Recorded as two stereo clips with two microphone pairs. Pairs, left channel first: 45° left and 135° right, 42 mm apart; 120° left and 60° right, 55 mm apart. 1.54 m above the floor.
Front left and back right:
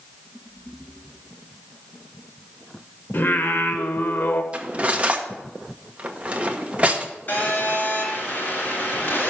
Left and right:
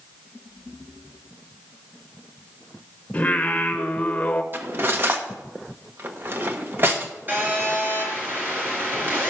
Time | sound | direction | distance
3.1 | singing | 60° left | 1.0 m
4.5 | cutlery clinking | 90° right | 1.0 m
7.3 | a phone buzzing | 10° right | 3.5 m